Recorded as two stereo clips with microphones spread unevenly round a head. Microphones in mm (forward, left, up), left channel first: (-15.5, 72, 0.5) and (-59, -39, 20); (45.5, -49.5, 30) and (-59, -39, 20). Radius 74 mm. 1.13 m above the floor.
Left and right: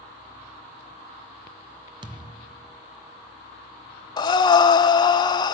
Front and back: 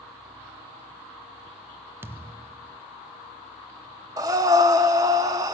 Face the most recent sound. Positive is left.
turn(degrees=115)